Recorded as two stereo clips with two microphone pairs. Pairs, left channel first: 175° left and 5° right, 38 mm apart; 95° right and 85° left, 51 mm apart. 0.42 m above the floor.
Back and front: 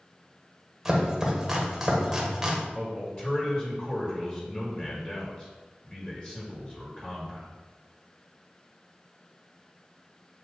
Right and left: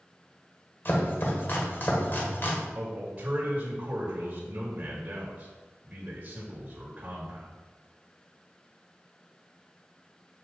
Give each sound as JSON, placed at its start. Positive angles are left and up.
{"t": 0.8, "sound": "chopping", "azimuth_deg": -75, "distance_m": 1.5}
{"t": 2.8, "sound": "a man speaking", "azimuth_deg": 125, "distance_m": 1.9}